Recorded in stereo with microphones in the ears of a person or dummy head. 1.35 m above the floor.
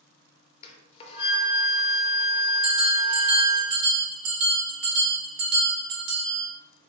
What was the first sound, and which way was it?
A flute, 35° left (ahead or behind).